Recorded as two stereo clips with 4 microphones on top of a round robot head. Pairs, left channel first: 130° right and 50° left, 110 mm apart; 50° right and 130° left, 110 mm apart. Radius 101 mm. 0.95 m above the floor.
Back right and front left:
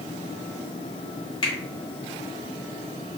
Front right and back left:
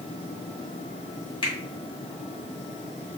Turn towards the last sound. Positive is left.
turn(degrees=-90)